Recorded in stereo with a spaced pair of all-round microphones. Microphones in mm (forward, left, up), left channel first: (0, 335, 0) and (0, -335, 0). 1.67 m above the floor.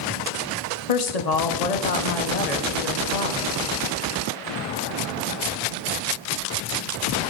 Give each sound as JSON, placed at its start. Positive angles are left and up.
{"t": 0.9, "sound": "a woman speaking", "side_deg": 70, "distance_m": 1.0}